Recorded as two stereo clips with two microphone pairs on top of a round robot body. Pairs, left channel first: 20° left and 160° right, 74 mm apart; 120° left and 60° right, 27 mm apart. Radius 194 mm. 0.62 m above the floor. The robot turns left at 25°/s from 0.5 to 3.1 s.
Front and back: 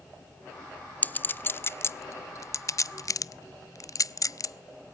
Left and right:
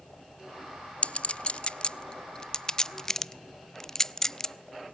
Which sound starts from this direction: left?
A clink, at 1.0 s.